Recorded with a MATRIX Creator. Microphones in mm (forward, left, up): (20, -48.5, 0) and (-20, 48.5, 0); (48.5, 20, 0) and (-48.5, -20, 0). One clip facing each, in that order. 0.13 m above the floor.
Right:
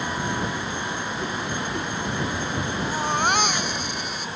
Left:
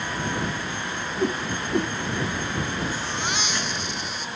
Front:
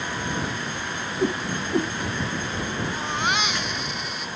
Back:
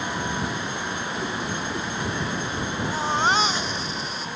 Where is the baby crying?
100° right.